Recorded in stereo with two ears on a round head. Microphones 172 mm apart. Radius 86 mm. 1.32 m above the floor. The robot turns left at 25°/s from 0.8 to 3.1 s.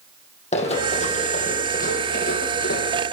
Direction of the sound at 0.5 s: 35° left (ahead or behind).